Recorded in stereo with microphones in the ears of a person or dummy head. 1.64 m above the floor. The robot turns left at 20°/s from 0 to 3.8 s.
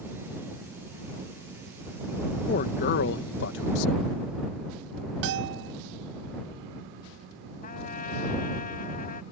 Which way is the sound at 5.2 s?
65° right (ahead or behind).